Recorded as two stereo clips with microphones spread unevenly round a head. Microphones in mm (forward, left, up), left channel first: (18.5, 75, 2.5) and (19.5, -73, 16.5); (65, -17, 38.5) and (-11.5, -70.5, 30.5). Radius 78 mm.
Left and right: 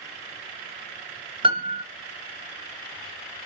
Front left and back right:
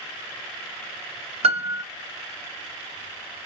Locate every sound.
1.4 s a piano: 150° right, 0.5 m